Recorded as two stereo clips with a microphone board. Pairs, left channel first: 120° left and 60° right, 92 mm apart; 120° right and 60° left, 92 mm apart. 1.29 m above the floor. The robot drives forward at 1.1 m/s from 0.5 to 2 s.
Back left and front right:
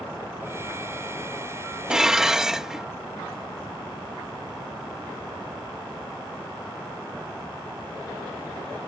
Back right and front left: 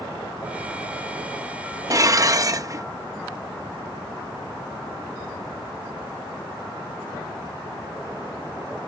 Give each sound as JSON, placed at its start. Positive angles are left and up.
{"t": 1.9, "sound": "dishes clattering", "azimuth_deg": 20}